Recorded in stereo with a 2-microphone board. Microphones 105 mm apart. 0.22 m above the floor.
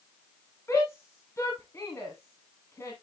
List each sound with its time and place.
0.7 s a shout: 25° left (ahead or behind), 1.6 m